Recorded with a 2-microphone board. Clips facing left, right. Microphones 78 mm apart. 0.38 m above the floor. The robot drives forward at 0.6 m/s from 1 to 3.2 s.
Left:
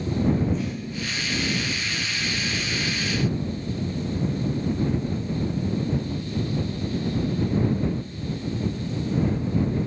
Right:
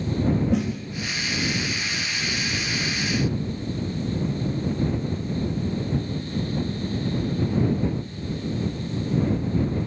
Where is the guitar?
I don't hear a guitar.